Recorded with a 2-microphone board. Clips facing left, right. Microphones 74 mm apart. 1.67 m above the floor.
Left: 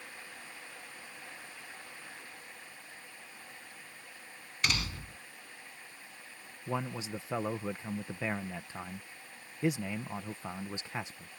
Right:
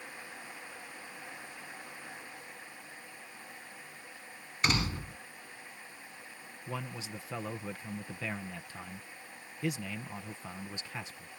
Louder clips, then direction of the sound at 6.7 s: Left 5 dB; 25° left (ahead or behind).